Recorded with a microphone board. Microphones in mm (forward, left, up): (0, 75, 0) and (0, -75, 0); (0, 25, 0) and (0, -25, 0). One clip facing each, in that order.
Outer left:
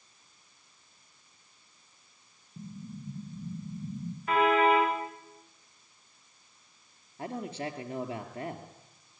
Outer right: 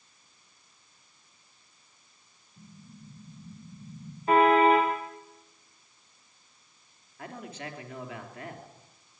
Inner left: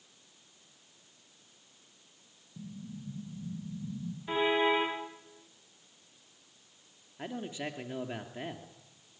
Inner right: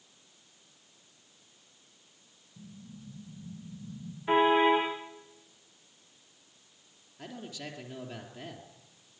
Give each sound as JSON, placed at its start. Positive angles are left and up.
{"t": 2.6, "sound": "an explosion", "side_deg": 70, "distance_m": 5.0}
{"t": 4.3, "sound": "a car horn", "side_deg": -30, "distance_m": 7.0}
{"t": 7.2, "sound": "a man speaking", "side_deg": 30, "distance_m": 3.0}